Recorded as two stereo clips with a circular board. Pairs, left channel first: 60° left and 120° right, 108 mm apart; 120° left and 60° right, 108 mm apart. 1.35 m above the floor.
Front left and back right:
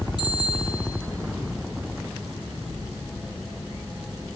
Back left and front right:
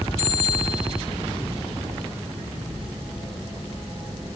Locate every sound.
0.2 s a bicycle bell: 105° left, 8.5 m